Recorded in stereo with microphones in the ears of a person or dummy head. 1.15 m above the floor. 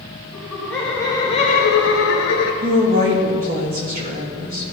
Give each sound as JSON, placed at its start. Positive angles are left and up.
{"t": 0.3, "sound": "laughter", "side_deg": -10, "distance_m": 2.0}
{"t": 2.6, "sound": "a woman speaking", "side_deg": -45, "distance_m": 1.9}